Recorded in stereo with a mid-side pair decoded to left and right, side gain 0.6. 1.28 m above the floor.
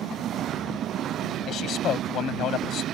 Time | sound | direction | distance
1.5 | a man speaking | 50° left | ?